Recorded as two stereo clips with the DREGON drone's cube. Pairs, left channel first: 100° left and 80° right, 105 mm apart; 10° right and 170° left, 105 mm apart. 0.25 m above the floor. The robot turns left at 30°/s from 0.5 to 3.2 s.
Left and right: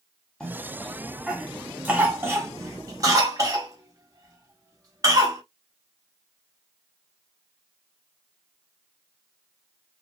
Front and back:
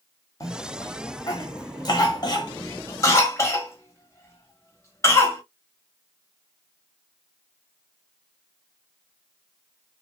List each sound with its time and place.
0.4 s a cough: 25° left, 1.2 m; by 5.4 s 55° right, 1.2 m